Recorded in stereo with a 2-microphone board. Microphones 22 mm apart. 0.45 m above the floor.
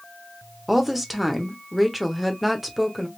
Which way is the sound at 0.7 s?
10° right (ahead or behind).